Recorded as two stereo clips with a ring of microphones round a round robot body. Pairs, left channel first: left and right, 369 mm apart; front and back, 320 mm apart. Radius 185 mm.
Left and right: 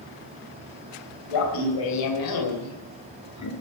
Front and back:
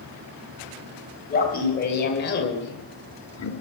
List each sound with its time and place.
1.3 s laughter: 60° left, 3 m; by 3.5 s 45° left, 1.6 m